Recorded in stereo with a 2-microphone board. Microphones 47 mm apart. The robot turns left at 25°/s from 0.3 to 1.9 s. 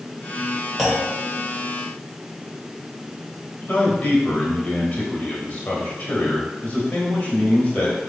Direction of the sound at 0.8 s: 5° right (ahead or behind).